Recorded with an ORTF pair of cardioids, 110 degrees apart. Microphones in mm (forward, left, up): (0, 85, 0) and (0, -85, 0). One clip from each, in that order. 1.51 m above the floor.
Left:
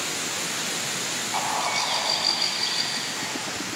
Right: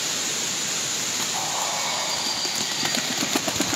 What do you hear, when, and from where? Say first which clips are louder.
1.3 s a bird: left 1 dB; 40° left, 1.2 m